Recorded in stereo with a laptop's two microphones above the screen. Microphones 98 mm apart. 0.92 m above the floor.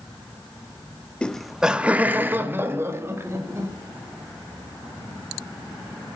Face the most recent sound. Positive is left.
turn(degrees=-30)  # may be behind; listen again after turning